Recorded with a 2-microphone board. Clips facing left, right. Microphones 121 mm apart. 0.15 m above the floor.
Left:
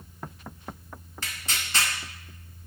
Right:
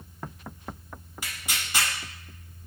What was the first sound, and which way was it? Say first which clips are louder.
Tearing paper: even; 10° right (ahead or behind).